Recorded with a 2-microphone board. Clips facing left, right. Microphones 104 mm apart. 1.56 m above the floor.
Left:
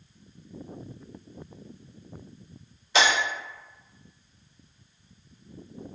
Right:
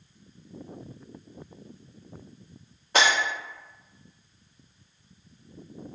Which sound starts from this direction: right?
Breaking glass, at 2.9 s.